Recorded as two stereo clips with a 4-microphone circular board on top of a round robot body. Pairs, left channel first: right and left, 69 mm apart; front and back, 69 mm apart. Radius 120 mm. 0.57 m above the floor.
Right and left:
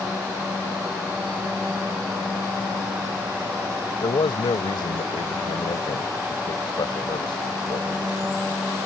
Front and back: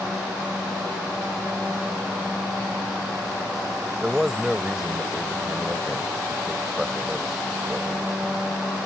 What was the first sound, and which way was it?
A man speaking, 95° right.